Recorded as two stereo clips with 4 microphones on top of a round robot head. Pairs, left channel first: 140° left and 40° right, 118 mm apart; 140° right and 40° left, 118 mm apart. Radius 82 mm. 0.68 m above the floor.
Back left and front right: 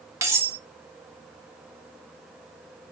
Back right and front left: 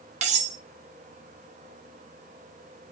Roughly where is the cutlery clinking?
Ahead.